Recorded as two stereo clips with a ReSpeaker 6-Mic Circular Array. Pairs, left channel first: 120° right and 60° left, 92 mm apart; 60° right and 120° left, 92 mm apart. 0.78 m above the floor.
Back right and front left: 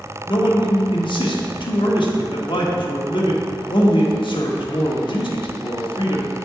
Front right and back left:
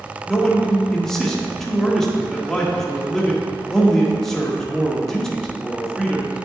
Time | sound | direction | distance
0.3 | a man speaking | 145° right | 1.3 m